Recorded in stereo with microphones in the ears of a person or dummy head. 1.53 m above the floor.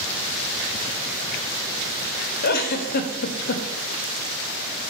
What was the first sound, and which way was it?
A giggle, 45° left (ahead or behind).